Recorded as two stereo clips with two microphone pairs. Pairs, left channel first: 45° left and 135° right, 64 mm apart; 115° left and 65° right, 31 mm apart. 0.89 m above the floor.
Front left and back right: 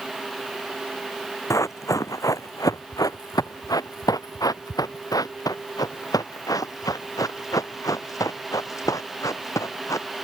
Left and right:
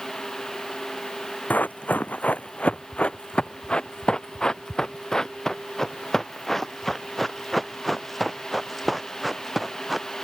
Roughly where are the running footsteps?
Left.